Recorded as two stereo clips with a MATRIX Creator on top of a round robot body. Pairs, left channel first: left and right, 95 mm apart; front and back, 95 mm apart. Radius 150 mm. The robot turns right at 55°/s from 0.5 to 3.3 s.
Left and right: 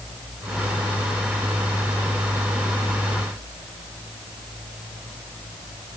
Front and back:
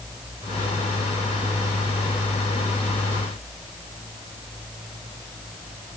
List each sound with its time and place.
Only background noise.